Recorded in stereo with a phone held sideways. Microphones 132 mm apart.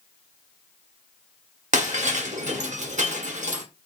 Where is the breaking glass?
65° right (ahead or behind), 1.1 m.